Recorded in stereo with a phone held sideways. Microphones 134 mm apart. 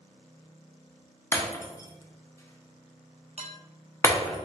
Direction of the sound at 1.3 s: 20° left (ahead or behind).